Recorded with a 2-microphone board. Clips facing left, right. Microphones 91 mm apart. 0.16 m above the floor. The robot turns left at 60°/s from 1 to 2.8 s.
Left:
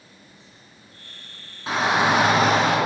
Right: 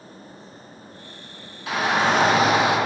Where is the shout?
40° left, 1.8 m; by 2.8 s 25° right, 1.8 m.